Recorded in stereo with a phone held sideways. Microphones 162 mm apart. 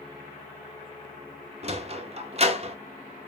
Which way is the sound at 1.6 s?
40° right (ahead or behind).